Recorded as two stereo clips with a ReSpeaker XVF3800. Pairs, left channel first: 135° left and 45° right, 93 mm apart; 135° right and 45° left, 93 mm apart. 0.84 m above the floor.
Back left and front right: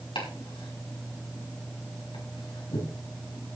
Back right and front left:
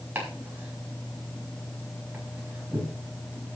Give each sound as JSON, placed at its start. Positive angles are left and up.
{"t": 0.1, "sound": "chopping", "azimuth_deg": 115, "distance_m": 5.5}